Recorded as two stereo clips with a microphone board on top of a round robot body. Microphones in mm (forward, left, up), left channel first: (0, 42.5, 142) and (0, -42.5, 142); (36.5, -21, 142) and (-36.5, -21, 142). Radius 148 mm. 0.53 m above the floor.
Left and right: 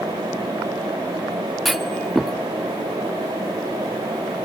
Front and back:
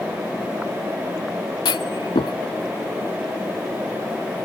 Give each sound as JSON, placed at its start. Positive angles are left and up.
{"t": 1.6, "sound": "a clunk", "azimuth_deg": 0}